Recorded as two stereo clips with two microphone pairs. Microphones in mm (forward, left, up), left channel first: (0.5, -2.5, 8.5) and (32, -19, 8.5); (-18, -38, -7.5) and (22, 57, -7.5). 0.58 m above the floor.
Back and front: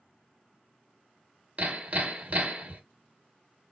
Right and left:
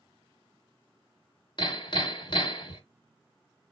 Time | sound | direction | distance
1.6 | hammering | 75° right | 1.1 m